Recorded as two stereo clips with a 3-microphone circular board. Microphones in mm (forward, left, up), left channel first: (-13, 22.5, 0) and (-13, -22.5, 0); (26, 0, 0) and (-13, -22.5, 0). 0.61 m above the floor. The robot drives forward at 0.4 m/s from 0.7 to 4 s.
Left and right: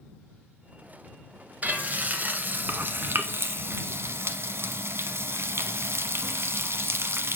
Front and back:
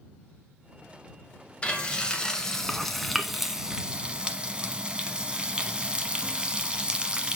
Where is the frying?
35° right, 1.3 m; by 7.4 s 85° right, 0.8 m.